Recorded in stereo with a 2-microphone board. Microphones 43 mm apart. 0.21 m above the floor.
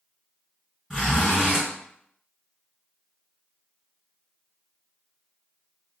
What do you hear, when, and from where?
0.9 s a zipper: 10° right (ahead or behind), 1.6 m